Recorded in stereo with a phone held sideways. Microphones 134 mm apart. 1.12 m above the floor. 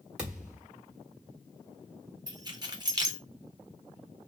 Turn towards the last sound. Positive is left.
turn(degrees=-30)  # may be behind; listen again after turning